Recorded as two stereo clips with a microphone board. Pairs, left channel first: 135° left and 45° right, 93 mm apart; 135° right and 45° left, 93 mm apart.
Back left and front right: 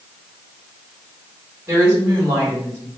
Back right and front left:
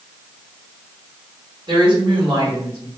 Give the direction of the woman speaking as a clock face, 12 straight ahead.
11 o'clock.